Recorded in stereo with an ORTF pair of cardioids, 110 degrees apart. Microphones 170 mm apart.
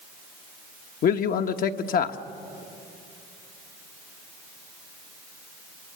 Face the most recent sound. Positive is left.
turn(degrees=60)